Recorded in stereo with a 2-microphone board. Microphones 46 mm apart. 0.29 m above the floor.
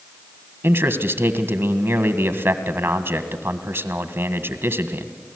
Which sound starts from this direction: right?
A man speaking, at 0.6 s.